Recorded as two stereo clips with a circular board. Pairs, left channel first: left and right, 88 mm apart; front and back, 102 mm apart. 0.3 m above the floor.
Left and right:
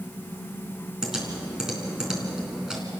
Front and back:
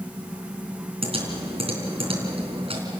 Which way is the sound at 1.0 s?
170° right.